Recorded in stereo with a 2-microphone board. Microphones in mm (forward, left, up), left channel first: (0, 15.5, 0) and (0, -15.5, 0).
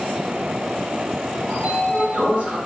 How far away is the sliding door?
About 1.7 m.